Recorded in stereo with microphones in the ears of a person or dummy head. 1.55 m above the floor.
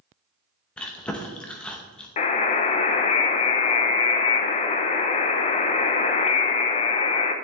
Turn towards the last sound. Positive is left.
turn(degrees=35)  # may be behind; listen again after turning